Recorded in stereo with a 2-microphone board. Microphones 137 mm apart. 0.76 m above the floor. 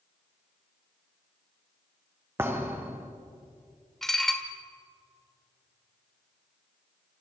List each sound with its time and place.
2.4 s a thud: 15° right (ahead or behind), 2 m
4.0 s dishes clattering: 5° left (ahead or behind), 1.4 m